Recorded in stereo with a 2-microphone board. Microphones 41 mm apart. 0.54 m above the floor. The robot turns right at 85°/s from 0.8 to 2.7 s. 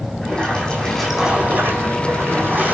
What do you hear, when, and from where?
0.2 s a splash: 165° left, 9 m; by 2.8 s 35° right, 9 m